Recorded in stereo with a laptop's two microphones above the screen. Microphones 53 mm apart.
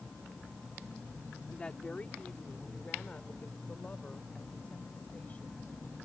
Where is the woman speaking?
20° left (ahead or behind); by 5.7 s 30° left (ahead or behind).